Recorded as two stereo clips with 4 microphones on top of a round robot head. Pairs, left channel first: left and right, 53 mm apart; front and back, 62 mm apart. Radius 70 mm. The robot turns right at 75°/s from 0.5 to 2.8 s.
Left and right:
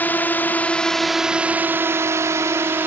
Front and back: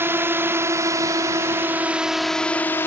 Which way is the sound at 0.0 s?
135° left.